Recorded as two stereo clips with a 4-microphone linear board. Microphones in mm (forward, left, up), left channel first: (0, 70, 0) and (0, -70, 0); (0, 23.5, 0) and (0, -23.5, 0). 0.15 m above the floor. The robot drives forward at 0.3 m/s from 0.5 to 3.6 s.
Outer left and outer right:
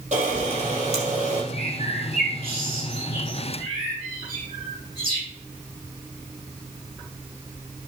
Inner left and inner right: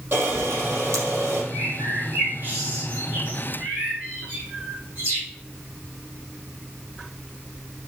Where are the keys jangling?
No keys jangling in this recording.